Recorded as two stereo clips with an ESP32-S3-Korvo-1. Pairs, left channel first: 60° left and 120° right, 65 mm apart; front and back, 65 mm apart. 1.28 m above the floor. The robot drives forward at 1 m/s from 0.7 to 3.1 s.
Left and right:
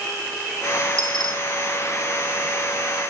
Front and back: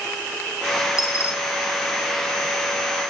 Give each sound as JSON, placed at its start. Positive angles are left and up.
{"t": 1.0, "sound": "a dropped coin", "azimuth_deg": -10, "distance_m": 1.6}